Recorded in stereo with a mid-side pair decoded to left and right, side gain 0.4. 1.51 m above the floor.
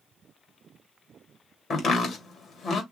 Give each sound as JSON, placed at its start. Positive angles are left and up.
{"t": 1.7, "sound": "chopping", "azimuth_deg": 60, "distance_m": 2.5}